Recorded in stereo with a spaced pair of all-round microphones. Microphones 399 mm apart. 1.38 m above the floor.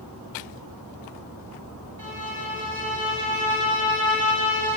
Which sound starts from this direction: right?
A violin, at 2.0 s.